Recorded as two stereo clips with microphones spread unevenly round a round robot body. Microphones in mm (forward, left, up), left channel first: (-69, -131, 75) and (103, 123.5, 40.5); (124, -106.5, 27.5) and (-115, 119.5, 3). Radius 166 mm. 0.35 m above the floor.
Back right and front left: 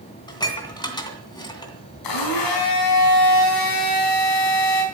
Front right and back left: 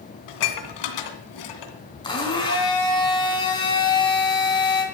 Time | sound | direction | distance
0.3 | dishes clattering | 45° right | 2.5 m
2.0 | a blender | 120° right | 4.5 m